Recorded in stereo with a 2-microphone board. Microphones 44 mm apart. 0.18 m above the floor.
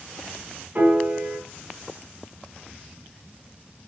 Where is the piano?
35° right (ahead or behind), 1.5 m.